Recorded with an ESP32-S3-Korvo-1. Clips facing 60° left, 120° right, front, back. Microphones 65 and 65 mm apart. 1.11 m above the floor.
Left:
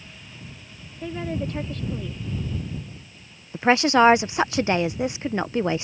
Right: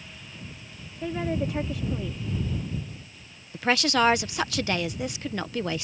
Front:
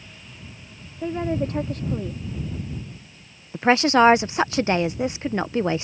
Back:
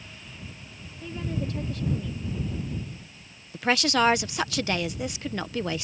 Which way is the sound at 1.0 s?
40° right.